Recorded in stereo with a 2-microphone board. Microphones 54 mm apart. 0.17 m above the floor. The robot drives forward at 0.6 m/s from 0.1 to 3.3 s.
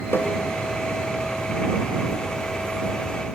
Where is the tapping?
50° left (ahead or behind), 1.4 m.